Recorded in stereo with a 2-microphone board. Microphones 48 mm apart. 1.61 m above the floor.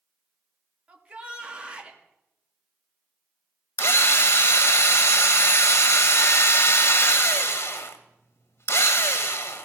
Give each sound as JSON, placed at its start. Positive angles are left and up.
{"t": 0.9, "sound": "a shout", "side_deg": -25, "distance_m": 2.5}
{"t": 3.8, "sound": "a drill", "side_deg": 65, "distance_m": 1.4}